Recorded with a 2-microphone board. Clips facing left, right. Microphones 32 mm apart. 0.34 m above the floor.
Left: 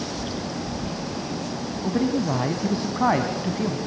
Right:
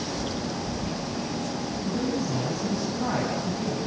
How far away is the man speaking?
About 2 m.